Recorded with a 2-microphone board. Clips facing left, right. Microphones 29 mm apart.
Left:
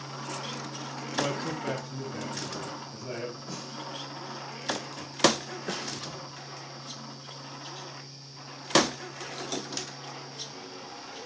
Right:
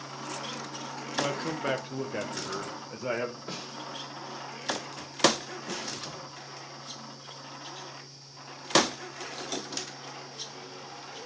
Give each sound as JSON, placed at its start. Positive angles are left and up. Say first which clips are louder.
{"t": 1.1, "sound": "a man speaking", "louder": "even", "side_deg": 5, "distance_m": 0.8}
{"t": 3.5, "sound": "a snare drum", "louder": "right 1 dB", "side_deg": -45, "distance_m": 3.0}
{"t": 5.7, "sound": "a snare drum", "louder": "left 2 dB", "side_deg": 85, "distance_m": 5.5}